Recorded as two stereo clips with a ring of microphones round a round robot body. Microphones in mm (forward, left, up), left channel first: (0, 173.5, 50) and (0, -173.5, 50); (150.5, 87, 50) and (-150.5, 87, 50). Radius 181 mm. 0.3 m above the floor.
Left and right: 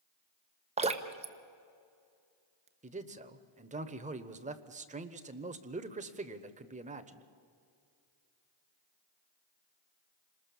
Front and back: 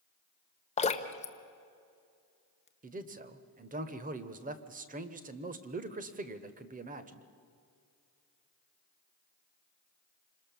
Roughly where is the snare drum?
No snare drum in this recording.